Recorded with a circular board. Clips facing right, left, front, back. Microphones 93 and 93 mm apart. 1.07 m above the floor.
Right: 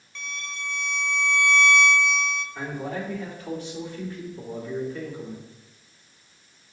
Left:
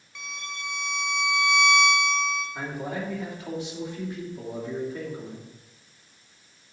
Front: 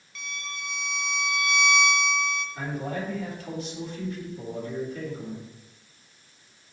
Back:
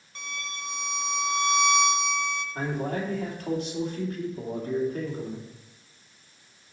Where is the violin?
165° left, 0.8 m.